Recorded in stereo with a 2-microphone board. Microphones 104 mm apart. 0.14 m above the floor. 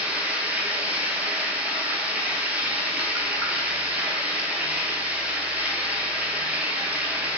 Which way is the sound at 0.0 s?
15° right (ahead or behind).